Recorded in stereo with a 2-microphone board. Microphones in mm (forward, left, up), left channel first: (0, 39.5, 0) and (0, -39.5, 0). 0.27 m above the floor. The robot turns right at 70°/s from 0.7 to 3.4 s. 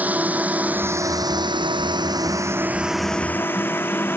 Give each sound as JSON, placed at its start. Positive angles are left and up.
{"t": 0.0, "sound": "a drone", "side_deg": -20}